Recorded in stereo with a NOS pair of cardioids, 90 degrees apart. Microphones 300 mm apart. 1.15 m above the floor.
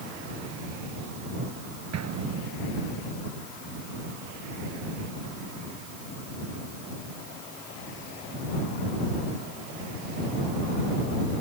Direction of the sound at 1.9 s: 60° right.